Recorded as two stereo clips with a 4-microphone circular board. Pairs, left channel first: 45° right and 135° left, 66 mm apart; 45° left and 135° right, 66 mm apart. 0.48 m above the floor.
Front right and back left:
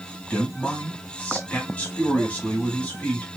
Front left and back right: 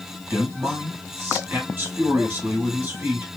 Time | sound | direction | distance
0.3 | a man speaking | 100° right | 1.0 m